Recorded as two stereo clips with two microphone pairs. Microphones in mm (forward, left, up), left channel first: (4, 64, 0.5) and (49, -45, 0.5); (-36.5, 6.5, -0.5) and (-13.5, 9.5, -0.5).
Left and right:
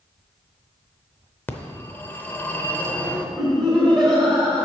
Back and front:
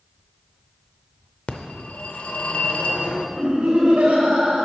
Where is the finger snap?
I don't hear a finger snap.